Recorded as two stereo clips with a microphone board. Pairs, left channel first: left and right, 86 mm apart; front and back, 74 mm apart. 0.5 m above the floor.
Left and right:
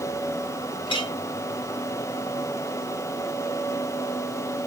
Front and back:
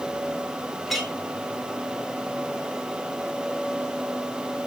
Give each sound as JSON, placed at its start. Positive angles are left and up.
{"t": 0.9, "sound": "a clink", "azimuth_deg": 90, "distance_m": 1.5}